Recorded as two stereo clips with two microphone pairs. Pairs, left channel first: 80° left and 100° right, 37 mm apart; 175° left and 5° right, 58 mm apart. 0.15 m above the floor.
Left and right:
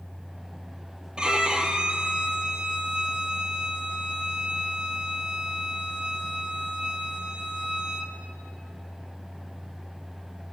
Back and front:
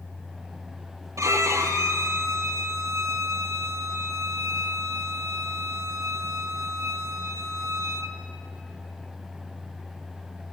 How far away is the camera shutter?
No camera shutter in this recording.